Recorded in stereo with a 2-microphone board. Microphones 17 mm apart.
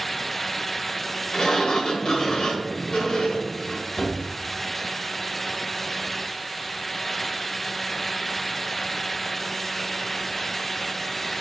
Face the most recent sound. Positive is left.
turn(degrees=40)  # may be behind; listen again after turning